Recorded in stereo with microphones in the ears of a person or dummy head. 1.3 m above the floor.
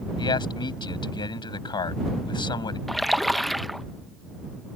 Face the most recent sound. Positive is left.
turn(degrees=0)  # may be behind; listen again after turning